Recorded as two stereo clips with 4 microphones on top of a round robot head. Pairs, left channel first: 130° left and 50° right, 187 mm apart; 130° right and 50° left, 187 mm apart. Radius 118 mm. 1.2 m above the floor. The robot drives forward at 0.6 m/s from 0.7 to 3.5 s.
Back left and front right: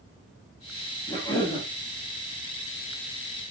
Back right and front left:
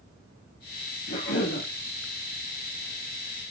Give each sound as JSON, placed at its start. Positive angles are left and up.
{"t": 1.1, "sound": "a cough", "azimuth_deg": -160, "distance_m": 2.5}